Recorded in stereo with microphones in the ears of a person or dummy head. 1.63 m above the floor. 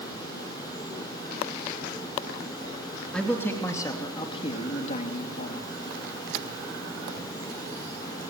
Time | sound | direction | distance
3.1 | a man speaking | 10° left (ahead or behind) | 3 m